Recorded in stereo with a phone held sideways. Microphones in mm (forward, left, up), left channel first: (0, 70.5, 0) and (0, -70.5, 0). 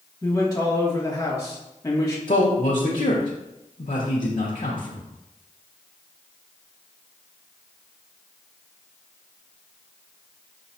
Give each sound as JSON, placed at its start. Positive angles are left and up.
{"t": 0.2, "sound": "a man speaking", "side_deg": 25, "distance_m": 1.9}
{"t": 2.3, "sound": "a man speaking", "side_deg": 55, "distance_m": 0.8}